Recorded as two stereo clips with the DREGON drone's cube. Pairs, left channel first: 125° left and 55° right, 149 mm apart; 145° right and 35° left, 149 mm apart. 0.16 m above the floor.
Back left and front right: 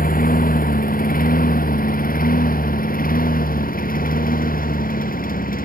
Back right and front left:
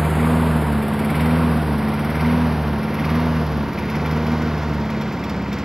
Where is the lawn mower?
125° left; by 5.7 s 120° left.